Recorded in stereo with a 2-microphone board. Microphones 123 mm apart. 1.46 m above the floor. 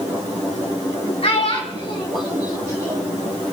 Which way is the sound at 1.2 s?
55° left (ahead or behind).